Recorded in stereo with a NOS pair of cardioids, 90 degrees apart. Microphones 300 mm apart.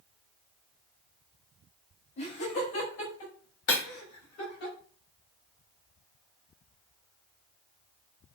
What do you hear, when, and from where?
2.2 s laughter: 50° left, 3.5 m; by 4.7 s 70° left, 4.5 m
3.7 s breaking glass: 65° left, 3 m